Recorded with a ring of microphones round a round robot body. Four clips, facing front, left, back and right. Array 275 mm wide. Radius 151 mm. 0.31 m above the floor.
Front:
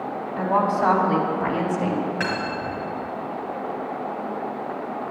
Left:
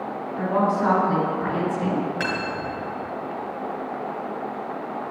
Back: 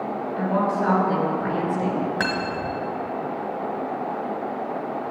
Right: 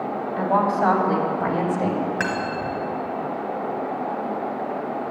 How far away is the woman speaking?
About 3 m.